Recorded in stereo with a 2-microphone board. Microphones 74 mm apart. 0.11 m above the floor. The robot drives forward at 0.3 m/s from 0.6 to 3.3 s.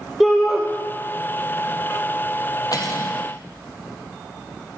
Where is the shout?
Centre (ahead or behind), 2.5 m.